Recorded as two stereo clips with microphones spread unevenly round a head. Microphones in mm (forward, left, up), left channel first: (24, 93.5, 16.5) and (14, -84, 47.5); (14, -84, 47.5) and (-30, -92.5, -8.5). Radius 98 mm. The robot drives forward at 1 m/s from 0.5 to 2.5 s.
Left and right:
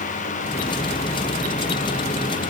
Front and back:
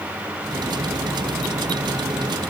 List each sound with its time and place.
Only background noise.